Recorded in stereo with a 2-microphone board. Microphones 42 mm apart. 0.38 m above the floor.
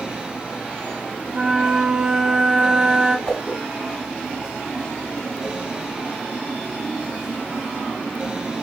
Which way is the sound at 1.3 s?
20° right (ahead or behind).